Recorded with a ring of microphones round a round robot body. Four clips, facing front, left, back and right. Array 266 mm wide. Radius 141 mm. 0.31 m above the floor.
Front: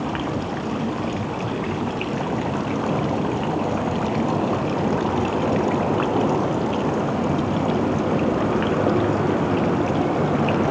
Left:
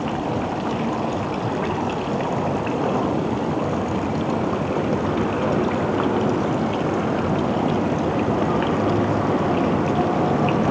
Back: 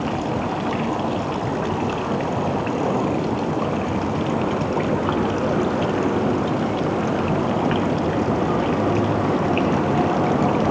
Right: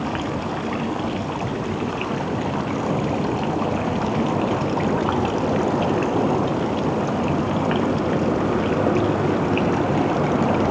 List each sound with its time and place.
Only background noise.